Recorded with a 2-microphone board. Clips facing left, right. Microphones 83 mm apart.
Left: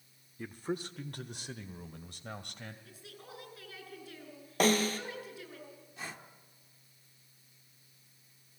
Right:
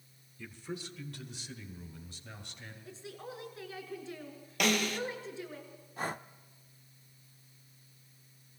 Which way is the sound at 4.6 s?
35° left (ahead or behind).